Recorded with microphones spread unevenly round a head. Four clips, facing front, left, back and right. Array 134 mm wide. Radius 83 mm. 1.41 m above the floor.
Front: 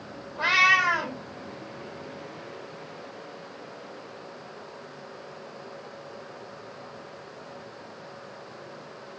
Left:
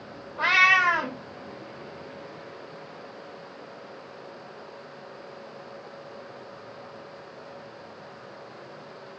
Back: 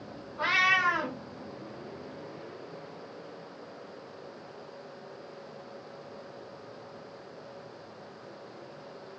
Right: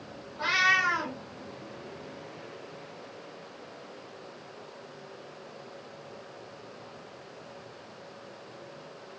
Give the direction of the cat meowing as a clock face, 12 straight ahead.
10 o'clock.